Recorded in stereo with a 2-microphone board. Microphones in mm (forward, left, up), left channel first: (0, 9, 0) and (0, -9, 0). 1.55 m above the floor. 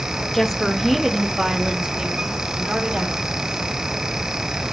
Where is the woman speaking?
20° left (ahead or behind), 1.8 m; by 3.5 s 55° right (ahead or behind), 5 m.